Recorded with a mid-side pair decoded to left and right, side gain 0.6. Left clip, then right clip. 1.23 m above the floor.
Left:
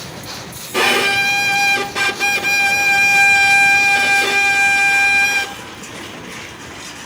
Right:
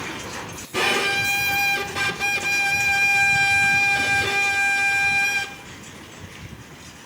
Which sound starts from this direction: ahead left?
A violin, at 0.7 s.